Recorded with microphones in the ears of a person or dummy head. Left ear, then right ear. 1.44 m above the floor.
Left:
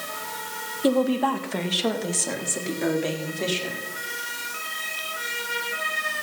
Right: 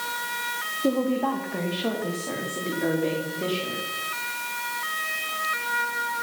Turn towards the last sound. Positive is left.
turn(degrees=85)